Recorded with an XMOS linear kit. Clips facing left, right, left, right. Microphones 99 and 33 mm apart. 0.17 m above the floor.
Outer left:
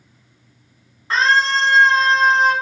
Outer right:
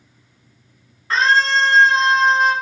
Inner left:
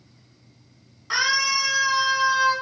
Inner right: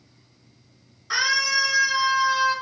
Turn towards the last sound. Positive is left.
turn(degrees=55)  # may be behind; listen again after turning